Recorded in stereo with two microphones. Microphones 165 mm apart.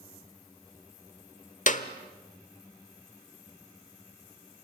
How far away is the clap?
About 1.1 m.